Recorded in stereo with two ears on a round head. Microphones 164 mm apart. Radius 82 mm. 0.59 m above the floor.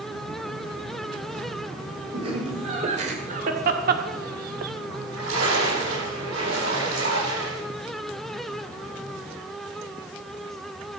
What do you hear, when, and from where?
2.1 s laughter: 30° right (ahead or behind), 2.5 m; by 4.7 s 45° right (ahead or behind), 1.0 m
4.9 s a splash: 80° right, 8.5 m